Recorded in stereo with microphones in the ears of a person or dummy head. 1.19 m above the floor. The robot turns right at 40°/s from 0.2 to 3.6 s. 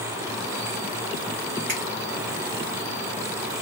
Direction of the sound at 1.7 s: 45° right (ahead or behind).